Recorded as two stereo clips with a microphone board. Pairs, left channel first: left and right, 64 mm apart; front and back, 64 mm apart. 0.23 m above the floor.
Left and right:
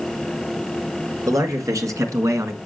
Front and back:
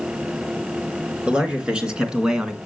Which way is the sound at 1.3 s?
110° right.